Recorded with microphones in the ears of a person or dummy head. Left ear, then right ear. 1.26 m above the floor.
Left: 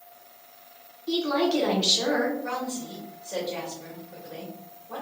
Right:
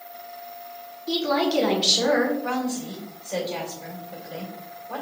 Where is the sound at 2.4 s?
5° right (ahead or behind), 2 m.